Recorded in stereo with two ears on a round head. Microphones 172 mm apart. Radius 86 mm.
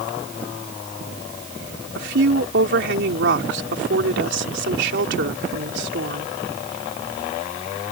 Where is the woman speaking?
65° right (ahead or behind).